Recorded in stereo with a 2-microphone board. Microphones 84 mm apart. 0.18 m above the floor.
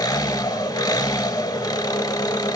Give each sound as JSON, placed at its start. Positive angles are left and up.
{"t": 0.0, "sound": "an engine running", "side_deg": 45, "distance_m": 0.8}